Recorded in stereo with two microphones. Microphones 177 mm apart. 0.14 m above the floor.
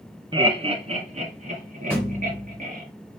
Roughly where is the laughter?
Right.